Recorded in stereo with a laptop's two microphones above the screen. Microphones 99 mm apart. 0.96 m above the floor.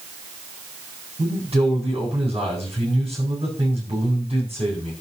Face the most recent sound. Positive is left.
turn(degrees=-80)